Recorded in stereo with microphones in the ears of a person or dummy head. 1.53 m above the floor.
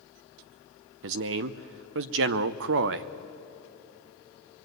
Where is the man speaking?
60° right (ahead or behind), 0.7 m.